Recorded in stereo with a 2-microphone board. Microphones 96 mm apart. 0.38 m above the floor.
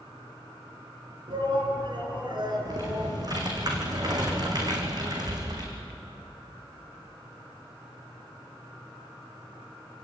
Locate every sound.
1.3 s a shout: 60° right (ahead or behind), 5 m; by 3.2 s 45° right (ahead or behind), 5.5 m
2.6 s typing on a keyboard: 45° right (ahead or behind), 3.5 m